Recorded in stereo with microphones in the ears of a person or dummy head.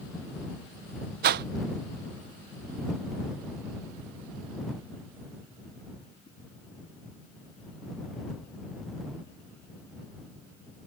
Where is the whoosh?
50° right (ahead or behind).